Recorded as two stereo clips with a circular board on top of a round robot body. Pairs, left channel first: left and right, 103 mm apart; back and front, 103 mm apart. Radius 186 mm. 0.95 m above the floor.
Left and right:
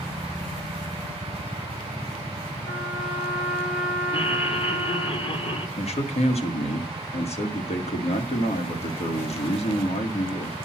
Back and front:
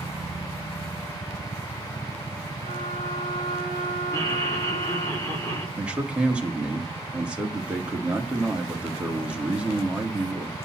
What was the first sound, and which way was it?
A trumpet, 115° left.